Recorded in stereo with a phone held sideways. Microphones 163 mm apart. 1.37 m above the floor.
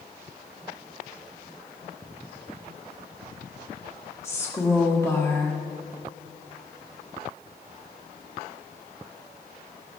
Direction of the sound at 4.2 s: 15° left (ahead or behind).